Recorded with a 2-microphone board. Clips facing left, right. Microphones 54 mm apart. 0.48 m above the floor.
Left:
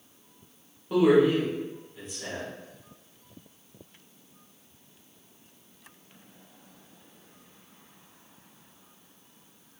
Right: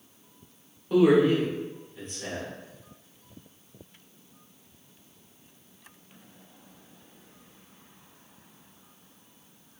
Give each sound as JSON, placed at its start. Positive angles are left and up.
{"t": 0.9, "sound": "a man speaking", "side_deg": 5, "distance_m": 1.2}